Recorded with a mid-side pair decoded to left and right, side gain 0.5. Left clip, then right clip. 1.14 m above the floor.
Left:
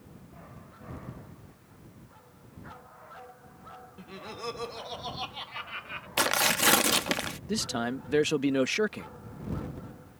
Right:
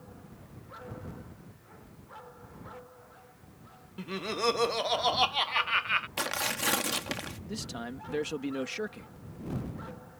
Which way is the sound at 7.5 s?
50° left.